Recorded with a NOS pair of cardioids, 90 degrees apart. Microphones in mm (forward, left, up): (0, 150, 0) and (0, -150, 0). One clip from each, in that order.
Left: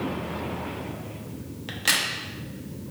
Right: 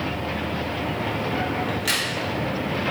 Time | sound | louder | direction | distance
1.7 | a crack | left 4 dB | 25° left | 0.9 m